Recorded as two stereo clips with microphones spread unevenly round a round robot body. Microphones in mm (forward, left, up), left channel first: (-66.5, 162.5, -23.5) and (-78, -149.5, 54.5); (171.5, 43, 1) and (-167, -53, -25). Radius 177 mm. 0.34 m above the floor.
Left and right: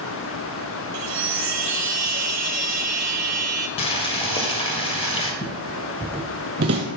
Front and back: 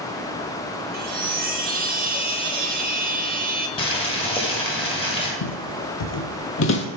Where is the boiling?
85° left, 1.6 m.